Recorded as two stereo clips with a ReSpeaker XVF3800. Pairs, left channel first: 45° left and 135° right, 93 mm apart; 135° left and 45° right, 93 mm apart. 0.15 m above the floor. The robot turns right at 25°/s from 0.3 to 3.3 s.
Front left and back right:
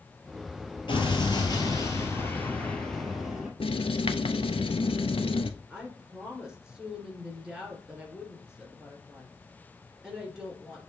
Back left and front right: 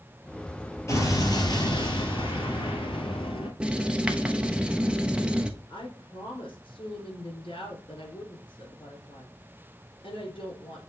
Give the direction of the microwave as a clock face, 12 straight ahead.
No microwave in this recording.